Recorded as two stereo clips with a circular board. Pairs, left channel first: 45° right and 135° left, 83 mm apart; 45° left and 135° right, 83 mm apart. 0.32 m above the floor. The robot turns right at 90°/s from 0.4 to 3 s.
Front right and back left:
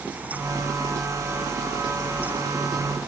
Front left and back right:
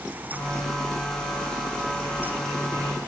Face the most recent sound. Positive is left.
No sound to turn to.